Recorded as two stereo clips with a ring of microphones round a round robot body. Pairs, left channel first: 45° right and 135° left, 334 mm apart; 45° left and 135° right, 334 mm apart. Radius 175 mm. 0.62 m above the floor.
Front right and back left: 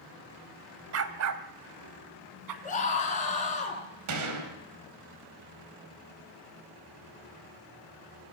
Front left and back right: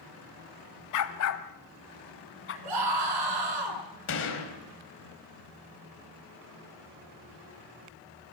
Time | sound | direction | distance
0.9 | a dog barking | 85° left | 1.4 m
2.6 | a scream | 115° right | 9.5 m
4.1 | a gunshot | 100° left | 4.5 m